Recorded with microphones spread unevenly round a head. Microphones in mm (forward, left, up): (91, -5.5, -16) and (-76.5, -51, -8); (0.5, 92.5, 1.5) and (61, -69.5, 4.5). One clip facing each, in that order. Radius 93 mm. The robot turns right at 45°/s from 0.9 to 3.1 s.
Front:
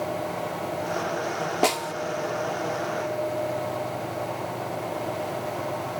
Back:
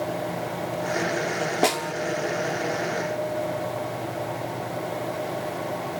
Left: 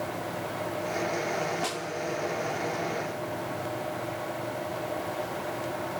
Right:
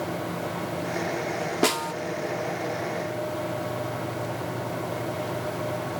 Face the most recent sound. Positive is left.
turn(degrees=-15)